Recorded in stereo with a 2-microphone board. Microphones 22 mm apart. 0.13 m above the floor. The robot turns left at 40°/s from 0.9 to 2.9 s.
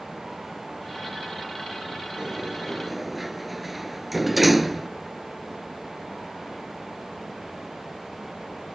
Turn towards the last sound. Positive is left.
turn(degrees=-5)  # may be behind; listen again after turning